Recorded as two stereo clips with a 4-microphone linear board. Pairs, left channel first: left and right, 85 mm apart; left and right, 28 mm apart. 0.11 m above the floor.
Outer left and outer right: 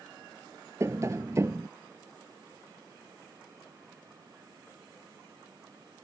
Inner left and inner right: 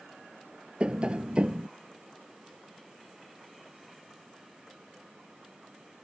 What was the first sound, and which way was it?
Tapping, 35° right (ahead or behind).